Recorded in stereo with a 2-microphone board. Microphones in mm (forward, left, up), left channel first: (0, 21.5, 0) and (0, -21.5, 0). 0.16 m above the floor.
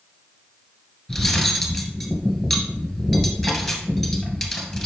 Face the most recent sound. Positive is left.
turn(degrees=5)  # may be behind; listen again after turning